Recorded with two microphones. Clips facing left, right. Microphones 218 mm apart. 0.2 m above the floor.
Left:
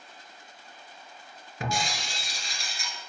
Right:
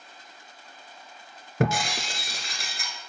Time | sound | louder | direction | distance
1.6 | breaking glass | right 7 dB | 70° right (ahead or behind) | 1.1 m